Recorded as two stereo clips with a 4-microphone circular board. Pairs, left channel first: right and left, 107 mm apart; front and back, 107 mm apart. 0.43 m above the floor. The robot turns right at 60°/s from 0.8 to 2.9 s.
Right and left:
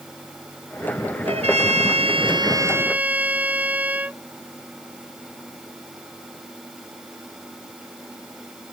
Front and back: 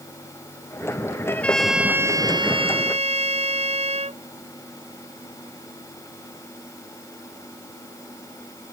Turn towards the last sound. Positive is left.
turn(degrees=165)